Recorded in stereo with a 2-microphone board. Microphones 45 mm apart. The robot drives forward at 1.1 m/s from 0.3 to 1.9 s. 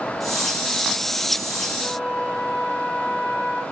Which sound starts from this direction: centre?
A flute, at 1.8 s.